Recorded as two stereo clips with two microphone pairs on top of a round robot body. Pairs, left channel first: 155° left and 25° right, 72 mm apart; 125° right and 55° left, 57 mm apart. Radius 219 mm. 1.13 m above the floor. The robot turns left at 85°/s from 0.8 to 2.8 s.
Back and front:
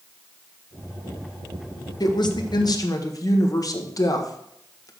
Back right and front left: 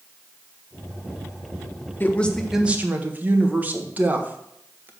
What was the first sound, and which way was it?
A woman speaking, 175° right.